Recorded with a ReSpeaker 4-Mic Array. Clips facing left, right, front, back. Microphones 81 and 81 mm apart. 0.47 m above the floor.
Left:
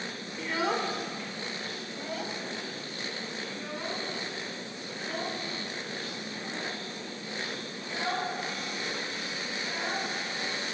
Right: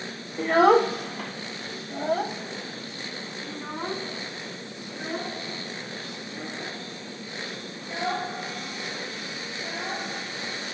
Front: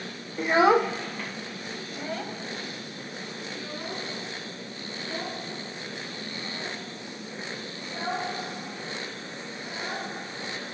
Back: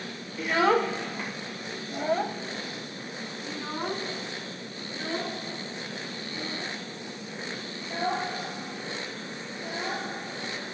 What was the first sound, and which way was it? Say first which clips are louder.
A child speaking: right 12 dB, front 3 dB; 50° right.